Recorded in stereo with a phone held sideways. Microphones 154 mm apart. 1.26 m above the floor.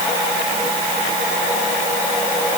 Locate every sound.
Only background noise.